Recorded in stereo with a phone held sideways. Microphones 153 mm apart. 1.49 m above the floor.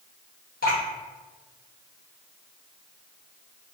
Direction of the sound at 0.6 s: 80° left.